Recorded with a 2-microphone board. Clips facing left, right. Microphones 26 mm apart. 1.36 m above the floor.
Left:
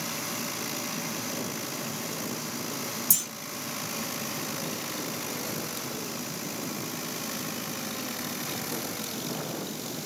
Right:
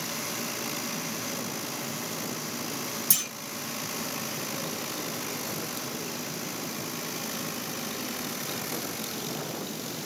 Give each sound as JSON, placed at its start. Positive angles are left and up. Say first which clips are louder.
{"t": 3.1, "sound": "a clunk", "louder": "right 2 dB", "side_deg": -45, "distance_m": 1.6}